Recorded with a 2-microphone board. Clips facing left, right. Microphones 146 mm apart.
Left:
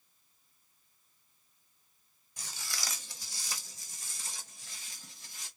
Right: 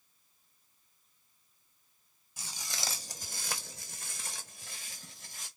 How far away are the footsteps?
About 0.7 m.